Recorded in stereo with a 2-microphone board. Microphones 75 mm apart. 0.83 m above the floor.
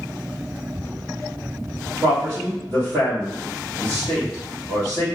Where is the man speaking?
55° right (ahead or behind), 1.6 m.